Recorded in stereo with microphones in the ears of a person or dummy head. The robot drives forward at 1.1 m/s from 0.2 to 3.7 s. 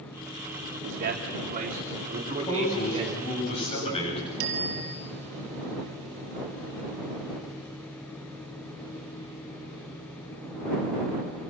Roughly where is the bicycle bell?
Right.